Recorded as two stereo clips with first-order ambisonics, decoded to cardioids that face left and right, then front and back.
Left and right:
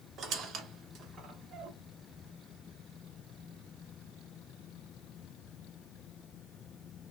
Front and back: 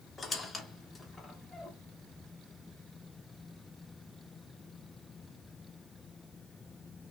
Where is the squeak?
75° right, 0.7 m.